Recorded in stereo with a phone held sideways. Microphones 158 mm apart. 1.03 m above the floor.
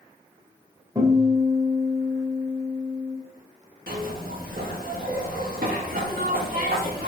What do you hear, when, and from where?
0.9 s a guitar: 20° right (ahead or behind), 3.5 m
3.9 s a zipper: 75° right (ahead or behind), 1.6 m